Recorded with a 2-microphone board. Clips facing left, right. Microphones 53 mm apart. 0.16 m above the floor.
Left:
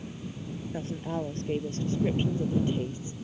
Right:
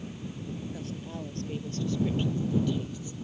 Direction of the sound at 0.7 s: 30° left (ahead or behind).